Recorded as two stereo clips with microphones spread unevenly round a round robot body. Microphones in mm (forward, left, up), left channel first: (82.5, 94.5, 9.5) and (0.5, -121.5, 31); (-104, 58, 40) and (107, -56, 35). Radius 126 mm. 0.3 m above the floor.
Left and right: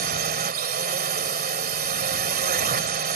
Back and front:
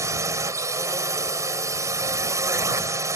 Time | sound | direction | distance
0.0 | a drone | 100° right | ?